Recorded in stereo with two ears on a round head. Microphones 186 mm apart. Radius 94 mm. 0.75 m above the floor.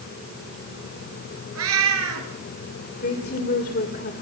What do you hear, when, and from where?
1.6 s a cat meowing: 80° right, 5 m
3.0 s a woman speaking: 45° left (ahead or behind), 2.5 m